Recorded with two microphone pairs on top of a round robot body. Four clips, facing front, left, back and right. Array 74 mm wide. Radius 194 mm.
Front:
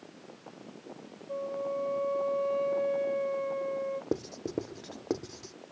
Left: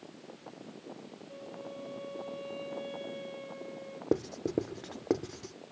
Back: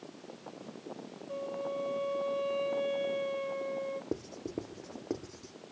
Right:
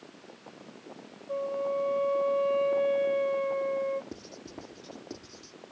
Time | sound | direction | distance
1.3 | a flute | 70° right | ?
4.1 | writing | 70° left | ?